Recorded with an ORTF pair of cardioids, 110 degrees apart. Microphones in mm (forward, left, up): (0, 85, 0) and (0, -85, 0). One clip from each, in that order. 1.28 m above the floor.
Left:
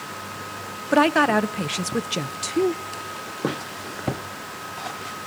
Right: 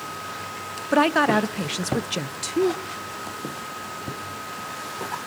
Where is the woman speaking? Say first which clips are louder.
Left 1 dB; 5° left, 0.5 m.